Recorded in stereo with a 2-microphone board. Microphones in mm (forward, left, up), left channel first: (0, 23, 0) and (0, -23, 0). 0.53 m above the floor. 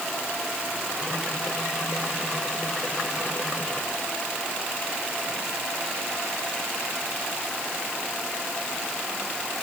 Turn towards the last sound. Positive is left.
No sound to turn to.